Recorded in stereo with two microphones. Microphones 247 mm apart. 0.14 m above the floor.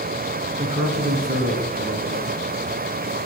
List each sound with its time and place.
0.6 s a man speaking: 15° right (ahead or behind), 1.5 m; by 2.4 s 40° right (ahead or behind), 2.5 m